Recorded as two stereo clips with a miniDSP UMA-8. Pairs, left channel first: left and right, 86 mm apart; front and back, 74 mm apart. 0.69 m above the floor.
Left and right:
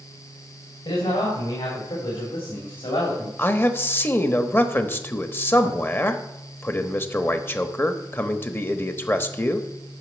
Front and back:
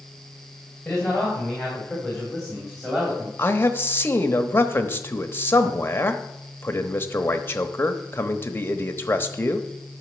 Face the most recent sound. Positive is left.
turn(degrees=40)